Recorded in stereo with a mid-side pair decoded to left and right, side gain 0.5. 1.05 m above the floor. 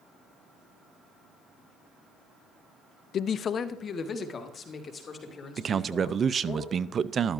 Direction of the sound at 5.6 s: 40° right.